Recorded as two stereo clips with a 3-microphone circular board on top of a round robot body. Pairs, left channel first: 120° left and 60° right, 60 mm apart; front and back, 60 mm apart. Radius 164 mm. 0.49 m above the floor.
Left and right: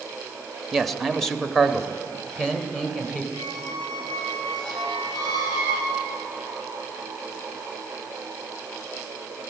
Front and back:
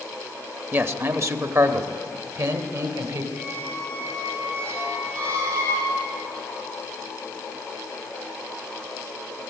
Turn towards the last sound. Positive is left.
turn(degrees=125)